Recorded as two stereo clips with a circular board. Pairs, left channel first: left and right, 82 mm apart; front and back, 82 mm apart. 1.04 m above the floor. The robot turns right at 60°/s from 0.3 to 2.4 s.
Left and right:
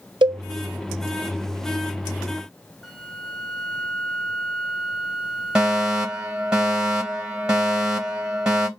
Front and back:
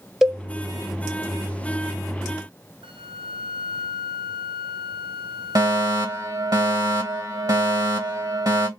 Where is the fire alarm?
170° right, 2 m.